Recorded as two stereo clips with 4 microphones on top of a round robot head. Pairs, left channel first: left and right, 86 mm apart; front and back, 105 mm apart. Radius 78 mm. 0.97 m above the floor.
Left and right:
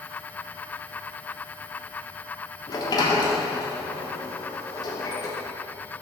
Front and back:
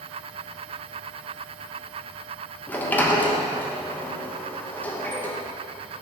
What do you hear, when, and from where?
2.7 s a sliding door: 70° left, 1.1 m